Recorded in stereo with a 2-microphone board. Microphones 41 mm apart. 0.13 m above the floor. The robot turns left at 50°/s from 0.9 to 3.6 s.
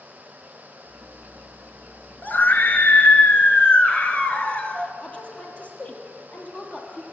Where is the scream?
110° left, 2 m; by 4.9 s 40° left, 2 m.